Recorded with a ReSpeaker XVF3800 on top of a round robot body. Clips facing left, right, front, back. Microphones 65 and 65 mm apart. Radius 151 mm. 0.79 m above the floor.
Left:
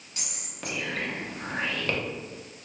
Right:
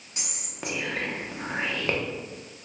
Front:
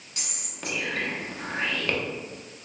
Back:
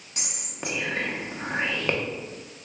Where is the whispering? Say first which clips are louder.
Right 2 dB, back 3 dB; 140° right, 1.0 m.